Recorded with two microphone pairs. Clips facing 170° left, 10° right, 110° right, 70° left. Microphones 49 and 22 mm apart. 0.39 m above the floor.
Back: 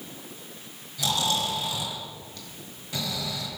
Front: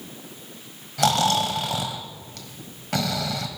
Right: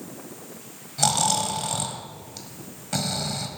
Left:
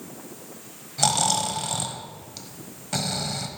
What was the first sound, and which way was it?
Snoring, 15° right.